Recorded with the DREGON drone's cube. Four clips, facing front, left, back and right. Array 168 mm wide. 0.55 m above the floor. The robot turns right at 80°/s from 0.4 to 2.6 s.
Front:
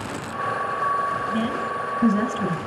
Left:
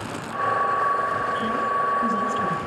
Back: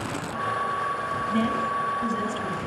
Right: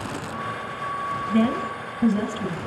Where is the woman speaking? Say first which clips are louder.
Right 1 dB, even; 100° right, 4 m; by 2.6 s 5° left, 4 m.